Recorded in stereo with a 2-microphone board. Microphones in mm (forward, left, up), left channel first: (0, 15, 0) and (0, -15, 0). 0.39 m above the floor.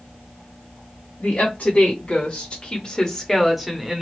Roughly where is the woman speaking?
Left.